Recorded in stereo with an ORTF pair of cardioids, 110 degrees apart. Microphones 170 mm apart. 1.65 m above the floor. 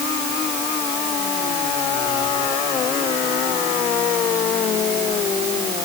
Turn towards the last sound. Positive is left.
No sound to turn to.